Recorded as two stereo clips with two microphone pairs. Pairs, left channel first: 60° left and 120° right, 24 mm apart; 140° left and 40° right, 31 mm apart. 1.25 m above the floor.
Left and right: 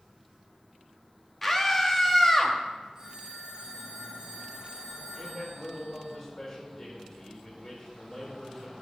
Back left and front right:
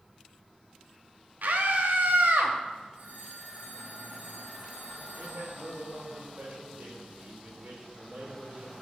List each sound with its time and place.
1.4 s a scream: 25° right, 2 m
3.0 s a phone ringing: 60° right, 4 m
5.2 s a man speaking: 20° right, 5.5 m